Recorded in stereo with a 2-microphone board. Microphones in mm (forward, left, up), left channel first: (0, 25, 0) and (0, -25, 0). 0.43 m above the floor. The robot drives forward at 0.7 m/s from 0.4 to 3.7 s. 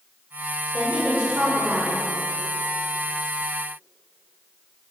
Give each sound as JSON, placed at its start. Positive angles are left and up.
{"t": 0.7, "sound": "a woman speaking", "side_deg": -20, "distance_m": 1.5}